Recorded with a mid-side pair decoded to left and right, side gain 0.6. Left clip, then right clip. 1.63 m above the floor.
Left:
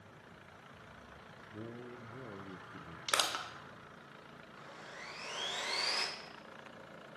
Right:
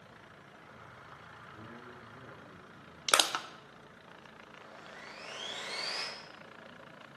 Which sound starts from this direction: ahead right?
Crushing, at 3.1 s.